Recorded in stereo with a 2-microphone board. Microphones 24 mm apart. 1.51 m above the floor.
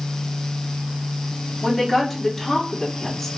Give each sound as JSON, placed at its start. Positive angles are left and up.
{"t": 1.6, "sound": "a woman speaking", "side_deg": 0, "distance_m": 3.0}